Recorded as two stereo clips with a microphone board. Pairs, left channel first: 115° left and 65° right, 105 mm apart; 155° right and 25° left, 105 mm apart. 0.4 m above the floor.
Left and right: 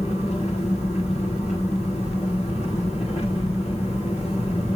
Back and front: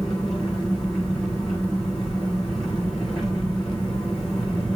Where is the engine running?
120° left, 7.5 m.